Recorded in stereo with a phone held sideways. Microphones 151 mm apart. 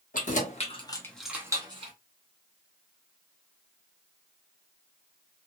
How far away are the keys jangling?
About 1.3 m.